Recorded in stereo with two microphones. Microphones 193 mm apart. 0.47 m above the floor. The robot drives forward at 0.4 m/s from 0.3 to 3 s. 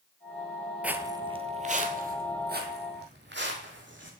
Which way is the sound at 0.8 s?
5° right (ahead or behind).